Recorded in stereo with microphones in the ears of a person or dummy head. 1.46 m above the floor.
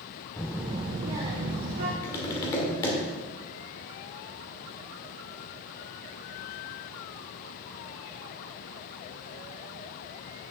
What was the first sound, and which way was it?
A child speaking, 15° left (ahead or behind).